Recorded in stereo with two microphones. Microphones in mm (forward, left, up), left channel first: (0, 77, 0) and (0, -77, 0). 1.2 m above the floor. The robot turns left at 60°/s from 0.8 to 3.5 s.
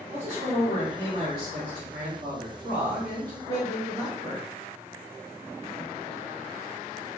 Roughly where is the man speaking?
Ahead right.